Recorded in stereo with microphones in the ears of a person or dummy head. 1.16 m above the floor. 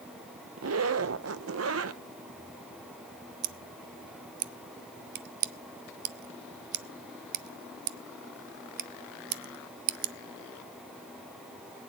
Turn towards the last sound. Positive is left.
turn(degrees=-55)  # may be behind; listen again after turning